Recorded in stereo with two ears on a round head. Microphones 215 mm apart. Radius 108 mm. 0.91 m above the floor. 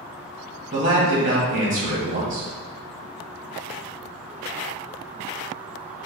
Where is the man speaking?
35° right (ahead or behind), 1.7 m.